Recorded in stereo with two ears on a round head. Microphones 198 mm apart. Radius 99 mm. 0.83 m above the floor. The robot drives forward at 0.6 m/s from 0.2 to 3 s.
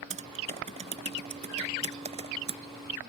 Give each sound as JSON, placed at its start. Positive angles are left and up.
{"t": 0.1, "sound": "typing on a keyboard", "side_deg": -35}